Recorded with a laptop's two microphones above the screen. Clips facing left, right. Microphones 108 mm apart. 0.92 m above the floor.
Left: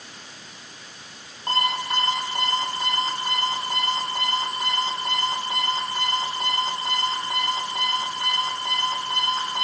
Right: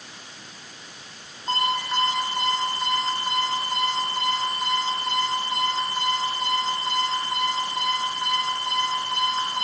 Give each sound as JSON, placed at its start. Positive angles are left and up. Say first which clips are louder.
{"t": 1.5, "sound": "an alarm clock", "louder": "even", "side_deg": 85, "distance_m": 9.5}